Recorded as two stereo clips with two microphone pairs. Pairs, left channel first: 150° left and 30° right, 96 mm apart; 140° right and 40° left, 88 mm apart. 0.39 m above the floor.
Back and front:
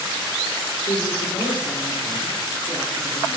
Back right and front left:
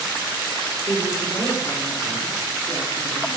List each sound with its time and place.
0.9 s a woman speaking: 165° left, 6 m; by 3.4 s 175° left, 6.5 m